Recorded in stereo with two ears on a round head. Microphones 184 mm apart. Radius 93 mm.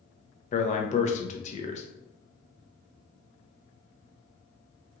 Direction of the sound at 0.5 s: 40° left (ahead or behind).